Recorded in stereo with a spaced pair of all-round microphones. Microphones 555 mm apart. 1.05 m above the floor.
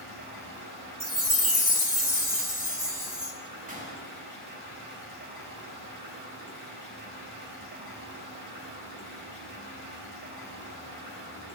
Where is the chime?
50° left (ahead or behind), 2.0 m.